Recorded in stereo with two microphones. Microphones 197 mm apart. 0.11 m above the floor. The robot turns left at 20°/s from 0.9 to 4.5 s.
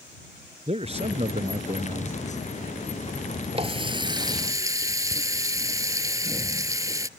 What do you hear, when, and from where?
0.7 s a man speaking: 35° right (ahead or behind)
3.5 s a running tap: 30° right (ahead or behind); by 7.1 s 15° right (ahead or behind)